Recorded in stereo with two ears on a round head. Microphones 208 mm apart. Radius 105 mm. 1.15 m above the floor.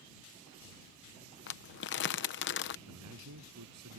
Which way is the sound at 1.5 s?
50° left (ahead or behind).